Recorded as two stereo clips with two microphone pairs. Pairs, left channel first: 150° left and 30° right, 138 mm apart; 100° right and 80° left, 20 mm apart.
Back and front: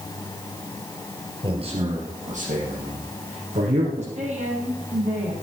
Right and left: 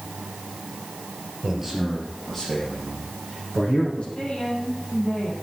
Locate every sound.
1.4 s a man speaking: 15° left, 2.5 m; by 4.0 s 50° right, 4.5 m
4.2 s a woman speaking: 60° right, 5 m